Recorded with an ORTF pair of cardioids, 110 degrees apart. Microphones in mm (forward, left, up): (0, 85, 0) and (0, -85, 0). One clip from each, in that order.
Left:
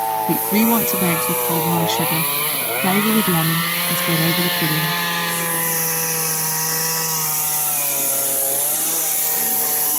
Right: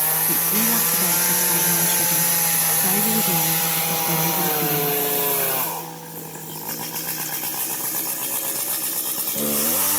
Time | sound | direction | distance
0.3 | a woman speaking | 55° left | ?